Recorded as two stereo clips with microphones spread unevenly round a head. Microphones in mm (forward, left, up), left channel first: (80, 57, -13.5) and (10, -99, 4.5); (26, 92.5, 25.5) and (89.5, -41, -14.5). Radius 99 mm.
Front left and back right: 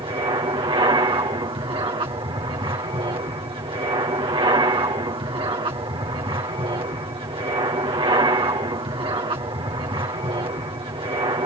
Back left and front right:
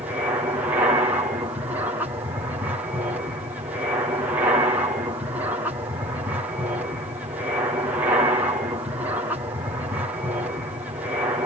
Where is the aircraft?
85° right.